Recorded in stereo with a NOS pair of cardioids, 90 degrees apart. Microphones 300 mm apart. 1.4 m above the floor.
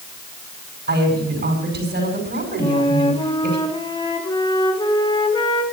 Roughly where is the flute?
Ahead.